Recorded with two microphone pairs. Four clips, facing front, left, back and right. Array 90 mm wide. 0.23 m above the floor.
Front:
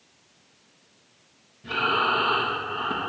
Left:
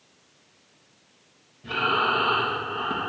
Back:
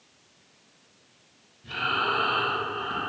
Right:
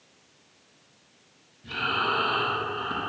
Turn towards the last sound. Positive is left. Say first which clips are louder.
# left 4 dB, front 4 dB
turn(degrees=55)